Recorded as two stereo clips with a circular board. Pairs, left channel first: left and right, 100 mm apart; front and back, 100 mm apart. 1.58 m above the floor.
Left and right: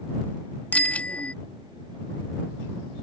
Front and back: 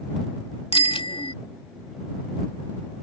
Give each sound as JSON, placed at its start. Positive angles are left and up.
{"t": 0.7, "sound": "a bicycle bell", "azimuth_deg": 15}